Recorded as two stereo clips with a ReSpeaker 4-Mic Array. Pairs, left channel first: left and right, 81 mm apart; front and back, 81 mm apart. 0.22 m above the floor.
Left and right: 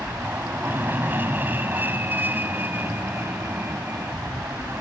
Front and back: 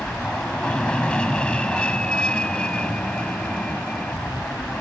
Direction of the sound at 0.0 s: 60° right.